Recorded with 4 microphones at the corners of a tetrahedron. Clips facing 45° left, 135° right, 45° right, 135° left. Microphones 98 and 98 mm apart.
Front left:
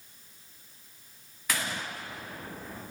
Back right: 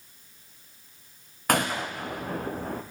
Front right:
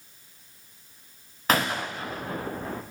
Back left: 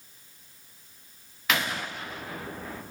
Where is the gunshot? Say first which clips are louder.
Back right 8 dB, front right 4 dB; 100° right, 3.5 m.